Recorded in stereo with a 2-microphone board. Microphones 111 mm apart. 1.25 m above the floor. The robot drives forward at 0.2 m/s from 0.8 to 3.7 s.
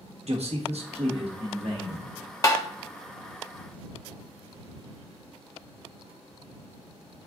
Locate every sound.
0.2 s a man speaking: 70° right (ahead or behind), 1.3 m; by 2.1 s 60° right (ahead or behind), 1.4 m
2.4 s tapping: 30° left (ahead or behind), 0.7 m